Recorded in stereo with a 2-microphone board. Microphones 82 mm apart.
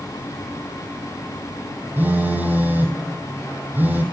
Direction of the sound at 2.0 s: 25° right (ahead or behind).